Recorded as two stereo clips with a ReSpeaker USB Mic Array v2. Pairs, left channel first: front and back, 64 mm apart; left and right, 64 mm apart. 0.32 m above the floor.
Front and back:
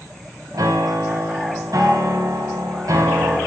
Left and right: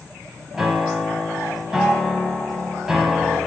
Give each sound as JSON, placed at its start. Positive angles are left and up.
{"t": 0.5, "sound": "a piano", "azimuth_deg": -170, "distance_m": 0.9}